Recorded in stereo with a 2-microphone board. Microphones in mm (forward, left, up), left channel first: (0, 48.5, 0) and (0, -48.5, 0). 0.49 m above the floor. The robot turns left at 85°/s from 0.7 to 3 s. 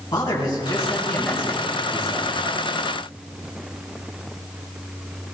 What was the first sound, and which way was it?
A man speaking, 45° left.